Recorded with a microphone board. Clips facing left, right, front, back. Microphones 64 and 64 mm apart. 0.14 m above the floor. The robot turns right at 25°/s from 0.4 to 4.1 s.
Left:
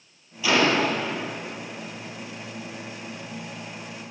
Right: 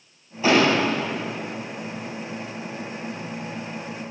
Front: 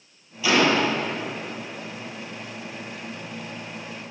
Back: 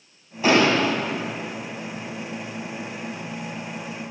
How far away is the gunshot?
About 2 m.